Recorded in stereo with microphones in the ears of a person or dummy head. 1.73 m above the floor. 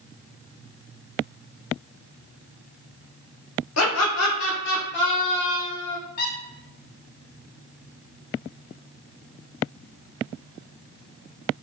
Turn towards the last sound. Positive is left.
turn(degrees=60)  # may be behind; listen again after turning